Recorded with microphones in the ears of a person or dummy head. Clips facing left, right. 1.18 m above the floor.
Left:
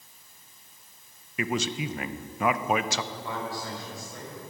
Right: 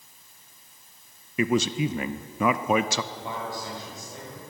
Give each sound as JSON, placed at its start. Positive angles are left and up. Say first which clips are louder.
{"t": 1.4, "sound": "a man speaking", "louder": "right 6 dB", "side_deg": -80, "distance_m": 0.6}
{"t": 3.1, "sound": "a man speaking", "louder": "even", "side_deg": -15, "distance_m": 5.0}